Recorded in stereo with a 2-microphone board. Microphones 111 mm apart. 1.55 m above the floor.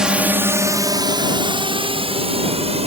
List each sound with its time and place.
0.0 s a drone: 5° right (ahead or behind); by 2.9 s 65° right (ahead or behind)